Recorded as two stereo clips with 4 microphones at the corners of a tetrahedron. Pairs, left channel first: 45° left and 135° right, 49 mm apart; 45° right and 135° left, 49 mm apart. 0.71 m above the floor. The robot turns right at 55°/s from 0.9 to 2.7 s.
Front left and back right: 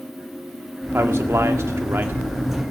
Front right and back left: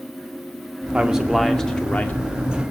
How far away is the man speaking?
About 1.6 m.